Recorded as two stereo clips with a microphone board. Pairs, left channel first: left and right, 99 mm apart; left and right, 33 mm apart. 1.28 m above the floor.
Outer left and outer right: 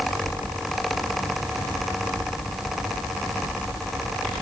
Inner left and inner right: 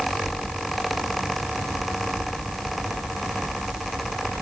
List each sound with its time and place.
Only background noise.